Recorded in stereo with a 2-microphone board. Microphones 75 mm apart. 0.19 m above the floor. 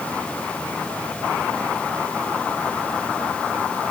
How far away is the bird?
I don't hear a bird.